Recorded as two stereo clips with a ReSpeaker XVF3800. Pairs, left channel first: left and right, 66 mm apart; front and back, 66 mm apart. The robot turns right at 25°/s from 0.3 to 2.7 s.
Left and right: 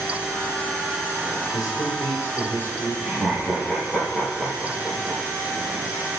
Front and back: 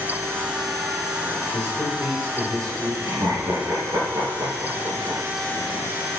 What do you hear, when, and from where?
1.5 s a man speaking: 120° left, 4.5 m; by 3.0 s 150° left, 4.5 m
3.0 s laughter: straight behind, 6.5 m